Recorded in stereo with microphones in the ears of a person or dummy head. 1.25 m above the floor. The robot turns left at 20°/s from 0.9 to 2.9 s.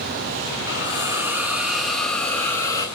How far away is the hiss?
About 6 m.